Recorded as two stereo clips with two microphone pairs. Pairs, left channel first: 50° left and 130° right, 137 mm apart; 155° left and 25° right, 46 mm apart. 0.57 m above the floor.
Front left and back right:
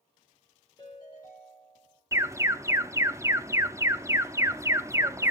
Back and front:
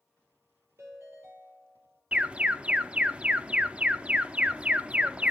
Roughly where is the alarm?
Right.